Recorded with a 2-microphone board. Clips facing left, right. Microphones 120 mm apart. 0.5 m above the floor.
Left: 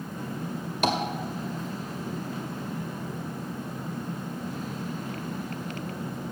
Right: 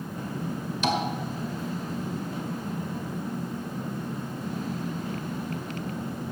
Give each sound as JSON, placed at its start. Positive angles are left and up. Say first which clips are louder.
{"t": 0.8, "sound": "tapping", "louder": "left 1 dB", "side_deg": 55, "distance_m": 1.6}